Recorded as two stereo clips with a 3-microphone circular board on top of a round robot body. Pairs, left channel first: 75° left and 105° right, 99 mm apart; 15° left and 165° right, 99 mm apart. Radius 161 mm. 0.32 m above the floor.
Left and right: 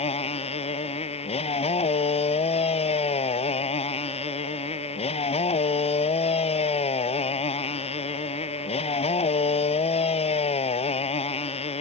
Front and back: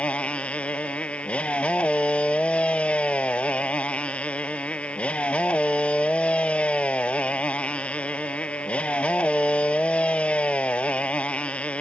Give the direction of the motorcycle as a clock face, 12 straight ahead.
9 o'clock.